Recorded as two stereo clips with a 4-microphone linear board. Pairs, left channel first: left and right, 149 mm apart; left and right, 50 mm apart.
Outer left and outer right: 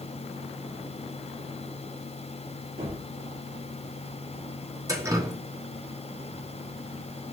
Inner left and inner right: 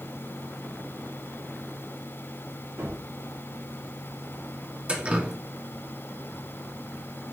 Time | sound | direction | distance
2.8 | a gunshot | 70° right (ahead or behind) | 2 m
4.9 | dripping | 20° right (ahead or behind) | 0.7 m